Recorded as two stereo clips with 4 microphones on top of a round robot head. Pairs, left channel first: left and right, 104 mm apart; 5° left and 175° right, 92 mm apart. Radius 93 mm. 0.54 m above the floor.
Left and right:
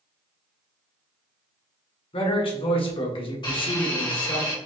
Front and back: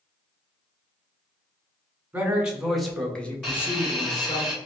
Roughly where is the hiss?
Left.